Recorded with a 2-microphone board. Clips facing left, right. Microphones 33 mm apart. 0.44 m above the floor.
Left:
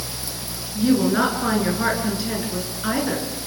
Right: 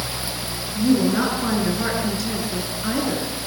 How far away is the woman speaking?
About 7 m.